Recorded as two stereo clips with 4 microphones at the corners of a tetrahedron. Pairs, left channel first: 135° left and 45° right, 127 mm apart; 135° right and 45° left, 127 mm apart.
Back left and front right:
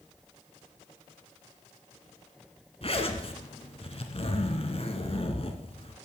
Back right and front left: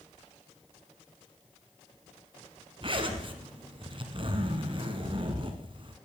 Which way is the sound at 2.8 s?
95° left.